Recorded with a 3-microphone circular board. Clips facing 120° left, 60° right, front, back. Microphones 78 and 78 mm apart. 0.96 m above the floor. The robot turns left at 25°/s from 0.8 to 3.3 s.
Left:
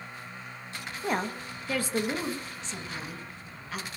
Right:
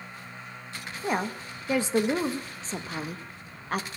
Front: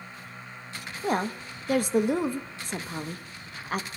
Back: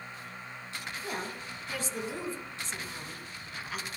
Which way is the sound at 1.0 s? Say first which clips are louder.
Right 1 dB, front 12 dB; 25° left.